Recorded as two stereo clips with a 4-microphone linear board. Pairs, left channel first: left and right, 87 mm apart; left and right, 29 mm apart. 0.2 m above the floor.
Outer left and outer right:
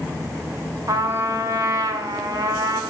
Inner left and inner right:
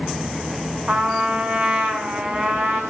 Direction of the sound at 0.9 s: 40° right (ahead or behind).